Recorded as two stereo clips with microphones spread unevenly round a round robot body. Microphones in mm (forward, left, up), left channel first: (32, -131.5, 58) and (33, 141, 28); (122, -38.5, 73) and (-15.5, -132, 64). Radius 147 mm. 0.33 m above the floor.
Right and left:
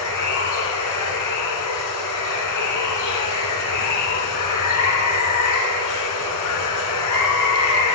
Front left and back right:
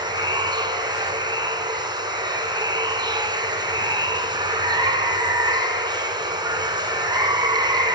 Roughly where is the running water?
Right.